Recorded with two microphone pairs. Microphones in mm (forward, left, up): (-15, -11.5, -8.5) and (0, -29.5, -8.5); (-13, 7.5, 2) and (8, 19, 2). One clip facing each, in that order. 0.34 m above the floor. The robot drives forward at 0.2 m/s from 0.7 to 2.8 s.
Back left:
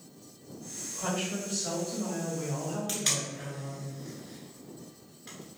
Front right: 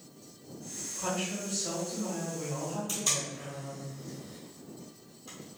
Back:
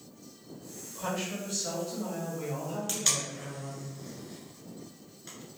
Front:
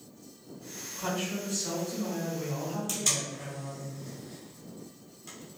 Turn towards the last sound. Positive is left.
turn(degrees=145)